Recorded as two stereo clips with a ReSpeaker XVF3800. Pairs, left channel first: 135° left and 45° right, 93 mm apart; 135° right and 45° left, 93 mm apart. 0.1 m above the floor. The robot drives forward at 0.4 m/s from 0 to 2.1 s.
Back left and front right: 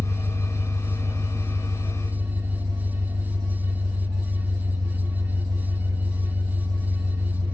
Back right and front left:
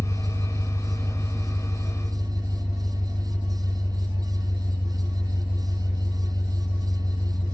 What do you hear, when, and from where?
0.0 s an engine running: 55° right, 1.6 m; by 7.5 s 90° right, 1.4 m